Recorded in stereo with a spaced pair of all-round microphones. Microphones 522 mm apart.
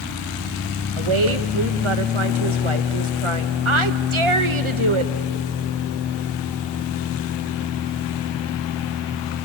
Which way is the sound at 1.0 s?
65° right (ahead or behind).